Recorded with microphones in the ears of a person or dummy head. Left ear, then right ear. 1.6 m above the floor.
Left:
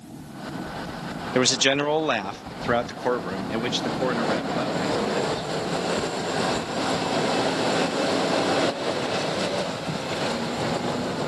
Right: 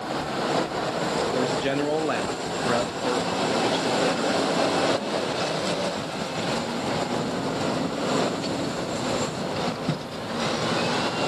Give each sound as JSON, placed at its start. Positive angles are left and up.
{"t": 1.4, "sound": "a man speaking", "side_deg": 70, "distance_m": 0.5}